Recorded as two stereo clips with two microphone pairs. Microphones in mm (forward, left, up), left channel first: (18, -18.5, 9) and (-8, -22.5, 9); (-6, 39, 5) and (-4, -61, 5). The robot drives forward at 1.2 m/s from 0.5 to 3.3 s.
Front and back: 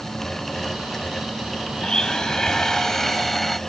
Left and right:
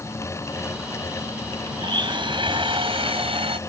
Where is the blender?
50° right; by 3.6 s 75° right.